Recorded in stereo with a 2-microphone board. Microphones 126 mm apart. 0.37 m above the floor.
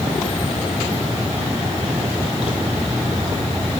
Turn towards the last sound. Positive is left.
No sound to turn to.